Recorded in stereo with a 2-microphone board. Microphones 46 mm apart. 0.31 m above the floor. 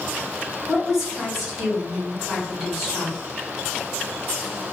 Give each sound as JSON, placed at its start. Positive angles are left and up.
{"t": 0.7, "sound": "a woman speaking", "side_deg": -5, "distance_m": 1.5}